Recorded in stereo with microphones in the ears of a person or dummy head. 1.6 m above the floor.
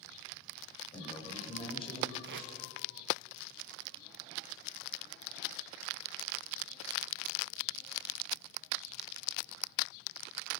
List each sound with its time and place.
0.9 s a man speaking: 35° left (ahead or behind), 9.5 m
2.2 s tape being pulled: 60° right (ahead or behind), 1.3 m